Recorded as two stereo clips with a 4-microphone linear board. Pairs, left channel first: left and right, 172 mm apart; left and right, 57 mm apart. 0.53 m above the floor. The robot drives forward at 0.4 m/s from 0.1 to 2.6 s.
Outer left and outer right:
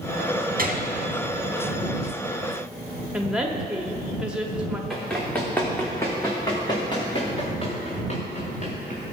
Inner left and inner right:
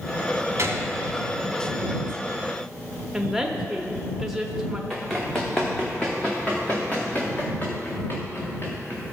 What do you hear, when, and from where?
0.6 s a gunshot: 55° right (ahead or behind), 1.6 m
3.1 s a woman speaking: 5° right (ahead or behind), 0.7 m
4.9 s running footsteps: centre (ahead or behind), 2.5 m; by 9.1 s 45° left (ahead or behind), 3.5 m